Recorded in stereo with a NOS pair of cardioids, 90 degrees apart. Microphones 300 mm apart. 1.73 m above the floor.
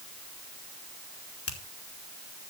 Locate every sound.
1.5 s a finger snap: 50° left, 3 m